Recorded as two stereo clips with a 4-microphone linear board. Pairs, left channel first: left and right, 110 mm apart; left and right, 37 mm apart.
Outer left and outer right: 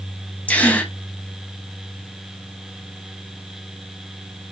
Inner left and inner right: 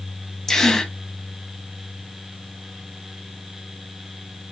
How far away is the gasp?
About 0.7 m.